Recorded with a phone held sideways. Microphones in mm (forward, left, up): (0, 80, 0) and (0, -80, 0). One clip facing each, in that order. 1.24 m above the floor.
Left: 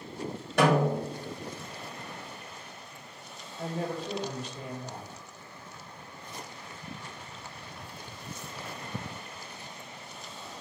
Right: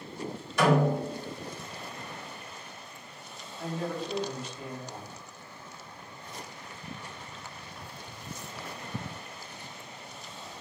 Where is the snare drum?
65° left (ahead or behind), 1.7 m.